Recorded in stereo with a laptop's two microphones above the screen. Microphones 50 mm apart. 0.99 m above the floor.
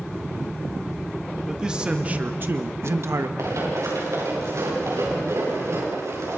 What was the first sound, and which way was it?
A man speaking, 10° right (ahead or behind).